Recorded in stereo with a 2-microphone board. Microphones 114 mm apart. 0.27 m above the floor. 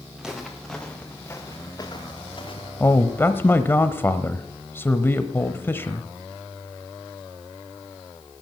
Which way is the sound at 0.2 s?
5° right (ahead or behind).